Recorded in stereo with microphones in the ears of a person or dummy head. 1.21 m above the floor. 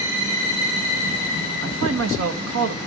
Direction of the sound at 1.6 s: 85° right.